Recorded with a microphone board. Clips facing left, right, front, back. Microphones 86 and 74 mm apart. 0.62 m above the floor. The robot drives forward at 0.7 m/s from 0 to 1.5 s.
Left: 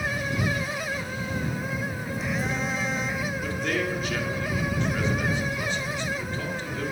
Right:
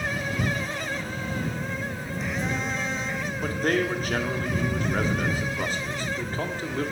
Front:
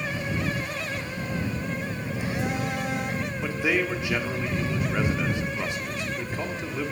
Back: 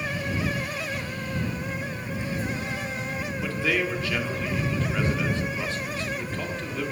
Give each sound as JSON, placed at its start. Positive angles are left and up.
{"t": 1.2, "sound": "a phone buzzing", "azimuth_deg": 5, "distance_m": 1.1}
{"t": 3.4, "sound": "a man speaking", "azimuth_deg": -65, "distance_m": 1.5}